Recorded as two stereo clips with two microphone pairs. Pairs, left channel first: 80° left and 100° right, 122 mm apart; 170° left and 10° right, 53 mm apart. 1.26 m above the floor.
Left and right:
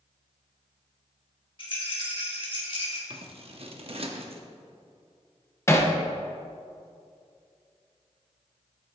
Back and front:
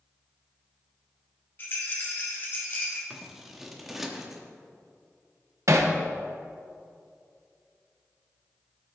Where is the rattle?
125° left, 1.9 m.